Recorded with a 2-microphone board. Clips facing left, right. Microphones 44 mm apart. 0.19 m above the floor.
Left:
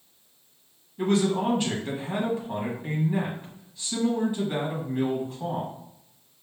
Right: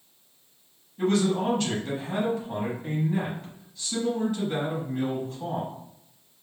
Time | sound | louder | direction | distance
1.0 | a man speaking | even | 20° left (ahead or behind) | 1.0 m